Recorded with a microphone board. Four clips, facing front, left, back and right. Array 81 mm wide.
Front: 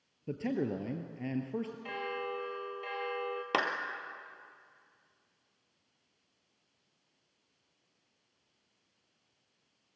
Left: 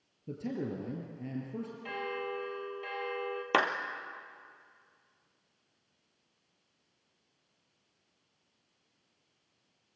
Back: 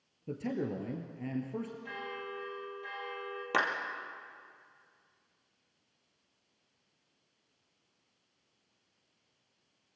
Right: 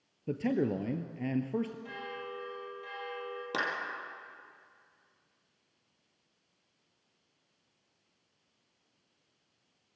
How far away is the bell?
About 3 m.